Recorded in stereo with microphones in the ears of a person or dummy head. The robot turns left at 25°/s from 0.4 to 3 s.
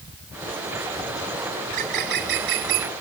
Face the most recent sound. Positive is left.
turn(degrees=-80)